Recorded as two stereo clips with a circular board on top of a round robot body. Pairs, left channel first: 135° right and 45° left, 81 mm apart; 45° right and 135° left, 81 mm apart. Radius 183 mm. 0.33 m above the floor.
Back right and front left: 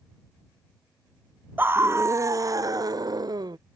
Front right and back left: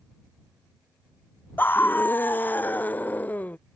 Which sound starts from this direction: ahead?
A scream, at 1.6 s.